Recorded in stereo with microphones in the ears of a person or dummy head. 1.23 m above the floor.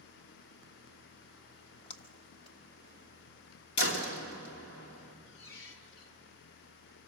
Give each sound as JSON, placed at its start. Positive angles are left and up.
{"t": 1.5, "sound": "a splash", "side_deg": 35, "distance_m": 0.9}
{"t": 3.8, "sound": "a door slam", "side_deg": 60, "distance_m": 2.5}
{"t": 5.3, "sound": "a squeak", "side_deg": 65, "distance_m": 1.6}